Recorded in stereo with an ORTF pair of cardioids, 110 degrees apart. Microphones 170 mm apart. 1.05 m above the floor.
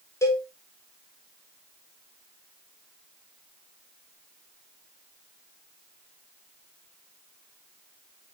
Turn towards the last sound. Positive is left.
turn(degrees=15)